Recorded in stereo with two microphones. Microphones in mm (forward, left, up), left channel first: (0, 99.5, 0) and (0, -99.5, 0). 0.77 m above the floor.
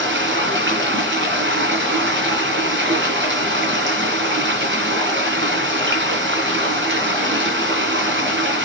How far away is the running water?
About 3 m.